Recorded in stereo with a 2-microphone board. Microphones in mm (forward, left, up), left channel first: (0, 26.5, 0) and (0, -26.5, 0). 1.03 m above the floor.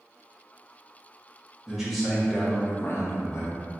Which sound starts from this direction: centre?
A man speaking, at 1.7 s.